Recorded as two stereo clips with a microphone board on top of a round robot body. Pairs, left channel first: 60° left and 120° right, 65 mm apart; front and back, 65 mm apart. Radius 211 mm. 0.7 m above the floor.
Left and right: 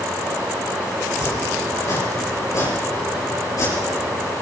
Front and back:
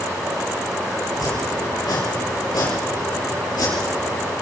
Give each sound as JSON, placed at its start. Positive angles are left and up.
{"t": 1.1, "sound": "chopping", "azimuth_deg": 20, "distance_m": 7.0}